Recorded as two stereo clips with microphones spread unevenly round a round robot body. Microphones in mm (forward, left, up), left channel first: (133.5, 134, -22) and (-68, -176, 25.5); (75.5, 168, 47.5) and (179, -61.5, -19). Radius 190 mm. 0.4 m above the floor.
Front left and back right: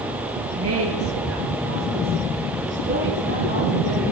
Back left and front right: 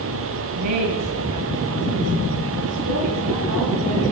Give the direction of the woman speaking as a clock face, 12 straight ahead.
2 o'clock.